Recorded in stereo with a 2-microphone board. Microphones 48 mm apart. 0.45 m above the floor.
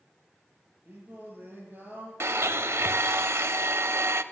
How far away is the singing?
About 4.5 m.